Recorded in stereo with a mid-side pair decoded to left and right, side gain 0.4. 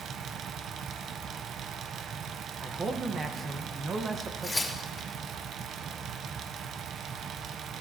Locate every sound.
0.0 s a fan: 70° right, 0.7 m
2.6 s a man speaking: 50° right, 1.4 m
4.4 s tearing paper: 10° left, 3 m